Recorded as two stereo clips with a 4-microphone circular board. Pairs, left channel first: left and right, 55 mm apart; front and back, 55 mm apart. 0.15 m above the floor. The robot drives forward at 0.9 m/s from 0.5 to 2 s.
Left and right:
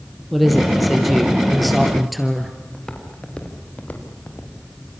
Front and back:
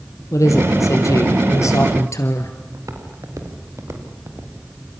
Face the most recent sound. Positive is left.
turn(degrees=135)